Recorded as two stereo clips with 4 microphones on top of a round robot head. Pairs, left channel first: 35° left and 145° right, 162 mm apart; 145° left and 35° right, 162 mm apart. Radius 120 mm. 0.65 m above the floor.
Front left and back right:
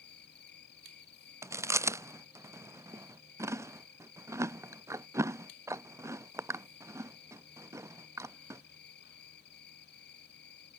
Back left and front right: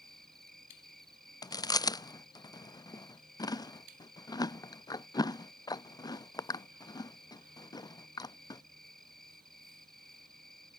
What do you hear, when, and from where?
0.0 s an insect: 55° left
1.4 s chewing: 170° left